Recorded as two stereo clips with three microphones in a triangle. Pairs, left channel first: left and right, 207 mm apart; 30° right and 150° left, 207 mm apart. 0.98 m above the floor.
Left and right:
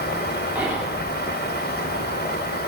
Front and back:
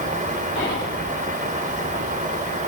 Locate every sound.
0.6 s whispering: 5° right, 2.5 m